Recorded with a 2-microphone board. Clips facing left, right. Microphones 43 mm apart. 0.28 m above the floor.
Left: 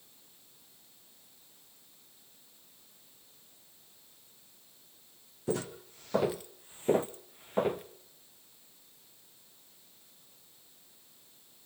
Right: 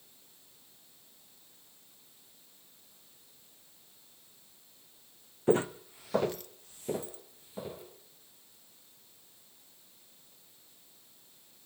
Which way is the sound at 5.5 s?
35° right (ahead or behind).